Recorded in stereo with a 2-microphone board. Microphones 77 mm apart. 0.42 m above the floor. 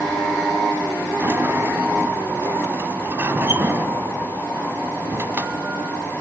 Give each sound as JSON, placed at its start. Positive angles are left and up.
{"t": 1.2, "sound": "a sliding door", "side_deg": -30, "distance_m": 1.9}